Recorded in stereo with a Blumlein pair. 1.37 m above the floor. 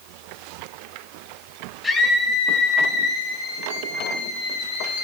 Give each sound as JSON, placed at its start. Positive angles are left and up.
{"t": 1.8, "sound": "a scream", "azimuth_deg": 15, "distance_m": 8.0}